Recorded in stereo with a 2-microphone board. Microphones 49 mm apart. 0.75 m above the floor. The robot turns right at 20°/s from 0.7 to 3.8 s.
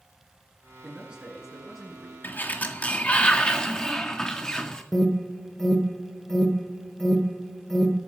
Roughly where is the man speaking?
Right.